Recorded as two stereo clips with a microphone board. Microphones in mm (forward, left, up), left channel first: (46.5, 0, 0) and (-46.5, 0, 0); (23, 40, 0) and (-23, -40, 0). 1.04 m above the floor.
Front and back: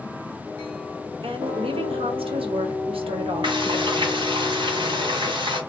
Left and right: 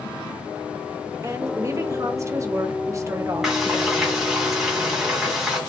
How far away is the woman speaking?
About 0.9 m.